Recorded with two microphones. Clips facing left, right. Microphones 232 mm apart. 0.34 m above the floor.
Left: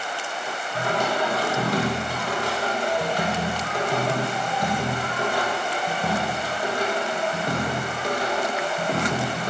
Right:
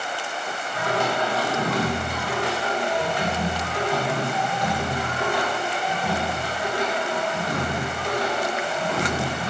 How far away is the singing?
About 1.6 m.